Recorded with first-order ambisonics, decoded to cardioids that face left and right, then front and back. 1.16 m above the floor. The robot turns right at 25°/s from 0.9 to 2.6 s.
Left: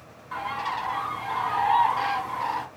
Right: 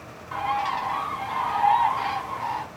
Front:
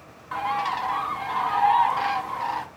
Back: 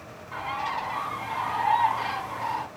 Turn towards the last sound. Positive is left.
turn(degrees=30)